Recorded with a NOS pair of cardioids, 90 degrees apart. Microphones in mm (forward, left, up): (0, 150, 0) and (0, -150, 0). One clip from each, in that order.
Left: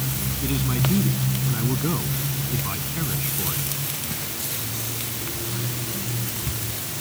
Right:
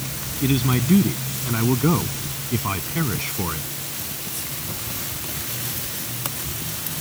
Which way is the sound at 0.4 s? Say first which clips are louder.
Right 5 dB; 50° right.